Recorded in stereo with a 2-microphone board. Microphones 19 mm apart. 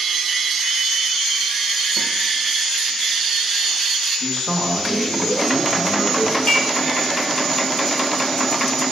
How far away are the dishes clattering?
About 1.8 m.